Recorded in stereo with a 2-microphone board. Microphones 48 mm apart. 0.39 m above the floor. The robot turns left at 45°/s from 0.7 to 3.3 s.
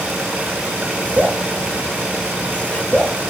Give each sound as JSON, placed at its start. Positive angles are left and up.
{"t": 1.2, "sound": "dripping", "side_deg": -35, "distance_m": 0.5}